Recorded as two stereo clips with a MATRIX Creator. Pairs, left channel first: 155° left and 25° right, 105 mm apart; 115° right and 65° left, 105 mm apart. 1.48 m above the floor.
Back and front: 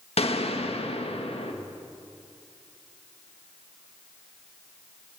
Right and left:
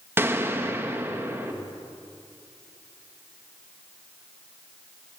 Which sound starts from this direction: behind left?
A gunshot, at 0.2 s.